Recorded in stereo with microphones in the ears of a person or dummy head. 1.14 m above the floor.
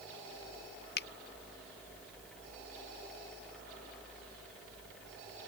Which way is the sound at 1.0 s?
65° left (ahead or behind).